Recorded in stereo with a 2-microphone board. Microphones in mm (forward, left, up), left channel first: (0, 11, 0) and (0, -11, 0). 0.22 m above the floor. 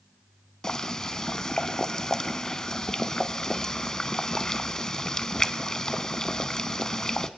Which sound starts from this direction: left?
Boiling, at 0.6 s.